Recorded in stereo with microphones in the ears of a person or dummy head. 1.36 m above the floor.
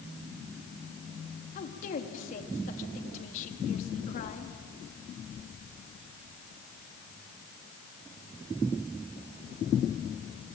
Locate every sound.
1.6 s a woman speaking: 50° left (ahead or behind), 3 m